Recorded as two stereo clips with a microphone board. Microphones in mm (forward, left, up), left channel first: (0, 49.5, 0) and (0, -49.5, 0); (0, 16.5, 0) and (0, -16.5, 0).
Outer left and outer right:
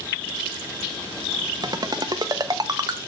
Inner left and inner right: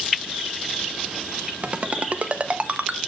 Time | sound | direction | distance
1.6 | a ringtone | 40° right (ahead or behind) | 0.6 m